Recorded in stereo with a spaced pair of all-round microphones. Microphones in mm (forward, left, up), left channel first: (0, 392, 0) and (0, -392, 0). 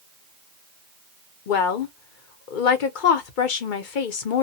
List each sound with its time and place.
1.5 s a woman speaking: 80° left, 0.8 m